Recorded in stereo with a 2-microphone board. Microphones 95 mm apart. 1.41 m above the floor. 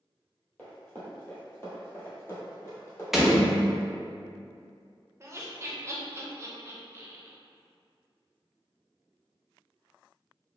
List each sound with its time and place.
0.6 s running footsteps: 15° left (ahead or behind), 1.5 m; by 3.0 s 25° left (ahead or behind), 1.7 m
3.1 s a door slam: 5° right (ahead or behind), 0.6 m
5.2 s laughter: 30° right (ahead or behind), 0.7 m